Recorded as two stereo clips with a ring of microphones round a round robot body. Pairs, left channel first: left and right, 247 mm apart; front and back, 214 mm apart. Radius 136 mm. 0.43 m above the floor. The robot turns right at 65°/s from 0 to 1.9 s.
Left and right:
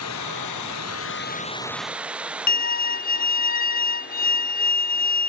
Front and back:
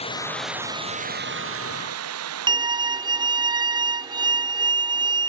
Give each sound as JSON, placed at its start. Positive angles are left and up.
{"t": 0.0, "sound": "running water", "azimuth_deg": 60}
{"t": 2.5, "sound": "a violin", "azimuth_deg": 120}